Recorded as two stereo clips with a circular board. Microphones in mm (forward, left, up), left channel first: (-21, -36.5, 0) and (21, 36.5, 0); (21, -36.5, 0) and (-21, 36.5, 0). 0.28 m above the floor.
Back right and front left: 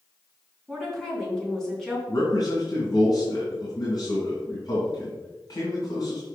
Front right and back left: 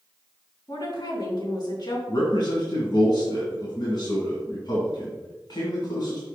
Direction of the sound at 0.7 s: 35° right.